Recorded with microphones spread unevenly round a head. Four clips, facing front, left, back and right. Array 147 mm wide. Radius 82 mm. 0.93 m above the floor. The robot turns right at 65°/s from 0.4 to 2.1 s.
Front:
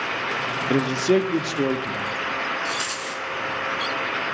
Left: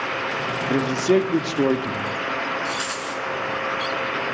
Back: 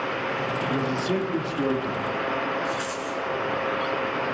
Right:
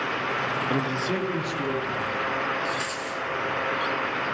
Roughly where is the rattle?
Ahead left.